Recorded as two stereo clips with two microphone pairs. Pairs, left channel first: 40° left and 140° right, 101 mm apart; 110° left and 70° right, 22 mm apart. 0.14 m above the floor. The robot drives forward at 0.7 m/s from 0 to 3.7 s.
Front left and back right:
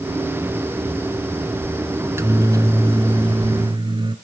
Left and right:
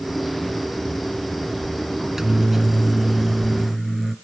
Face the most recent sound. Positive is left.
turn(degrees=-160)